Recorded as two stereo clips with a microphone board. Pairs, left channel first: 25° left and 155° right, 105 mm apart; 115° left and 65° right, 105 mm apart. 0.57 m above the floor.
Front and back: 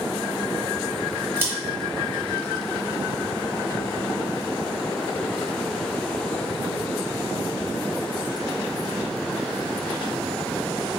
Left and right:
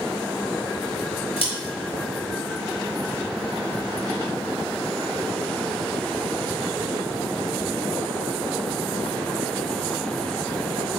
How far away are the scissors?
About 1.9 m.